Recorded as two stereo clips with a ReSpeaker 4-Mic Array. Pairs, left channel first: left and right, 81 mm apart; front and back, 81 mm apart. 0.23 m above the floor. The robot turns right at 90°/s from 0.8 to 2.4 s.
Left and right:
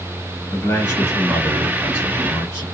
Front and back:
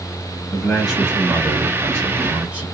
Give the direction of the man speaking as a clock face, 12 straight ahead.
9 o'clock.